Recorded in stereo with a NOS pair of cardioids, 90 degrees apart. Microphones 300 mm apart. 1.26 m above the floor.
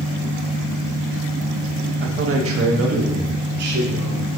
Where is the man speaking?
35° right, 1.1 m; by 4.3 s 55° right, 3 m.